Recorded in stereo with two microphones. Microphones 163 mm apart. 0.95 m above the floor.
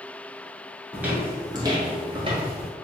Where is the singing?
I don't hear singing.